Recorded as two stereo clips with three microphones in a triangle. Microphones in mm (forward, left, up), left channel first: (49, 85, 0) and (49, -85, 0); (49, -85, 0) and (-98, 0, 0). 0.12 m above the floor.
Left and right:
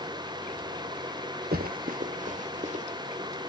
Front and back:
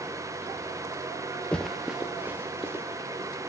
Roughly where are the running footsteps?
Behind right.